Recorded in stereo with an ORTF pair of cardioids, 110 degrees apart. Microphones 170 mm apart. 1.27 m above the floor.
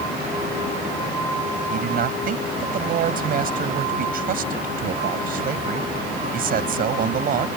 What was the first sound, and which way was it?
A man speaking, 60° right.